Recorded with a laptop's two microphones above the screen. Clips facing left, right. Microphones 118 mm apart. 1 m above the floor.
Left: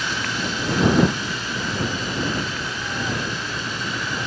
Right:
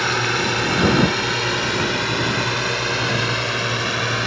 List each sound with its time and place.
0.0 s a drone: 65° right (ahead or behind); by 4.3 s 70° right (ahead or behind)